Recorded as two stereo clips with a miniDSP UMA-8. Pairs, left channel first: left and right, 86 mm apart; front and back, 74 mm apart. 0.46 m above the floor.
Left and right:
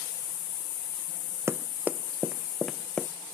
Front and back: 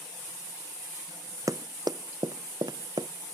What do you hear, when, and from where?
1.5 s running footsteps: 145° right; by 3.1 s 170° left